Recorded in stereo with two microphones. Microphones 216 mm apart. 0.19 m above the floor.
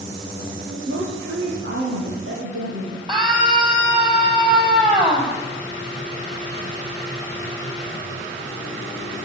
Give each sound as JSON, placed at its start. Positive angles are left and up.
{"t": 0.7, "sound": "a woman speaking", "side_deg": -65, "distance_m": 6.0}
{"t": 3.1, "sound": "a scream", "side_deg": -20, "distance_m": 6.5}